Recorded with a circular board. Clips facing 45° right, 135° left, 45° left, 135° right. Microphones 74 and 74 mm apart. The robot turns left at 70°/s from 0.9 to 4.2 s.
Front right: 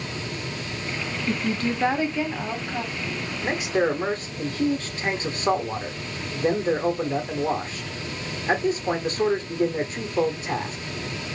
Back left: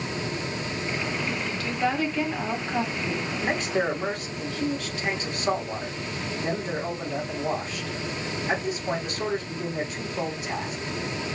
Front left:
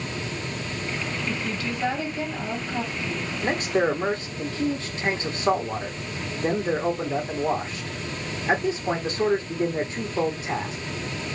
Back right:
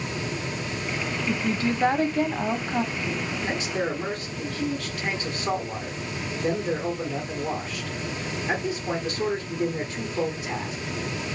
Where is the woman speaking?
60° right, 1.2 m; by 3.3 s 160° left, 1.2 m.